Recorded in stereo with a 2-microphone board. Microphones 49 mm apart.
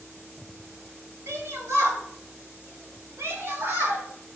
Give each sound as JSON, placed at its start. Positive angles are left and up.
{"t": 1.3, "sound": "a shout", "side_deg": -70, "distance_m": 2.0}